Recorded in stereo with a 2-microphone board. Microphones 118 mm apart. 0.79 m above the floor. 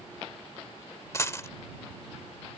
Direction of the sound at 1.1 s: 25° left (ahead or behind).